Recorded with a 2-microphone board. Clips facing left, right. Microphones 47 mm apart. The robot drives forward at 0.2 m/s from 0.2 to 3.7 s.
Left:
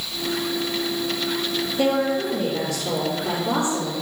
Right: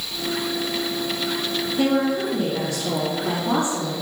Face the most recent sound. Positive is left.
turn(degrees=-35)  # may be behind; listen again after turning